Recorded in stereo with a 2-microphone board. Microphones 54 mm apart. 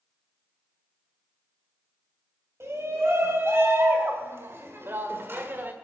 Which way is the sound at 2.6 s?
50° right (ahead or behind).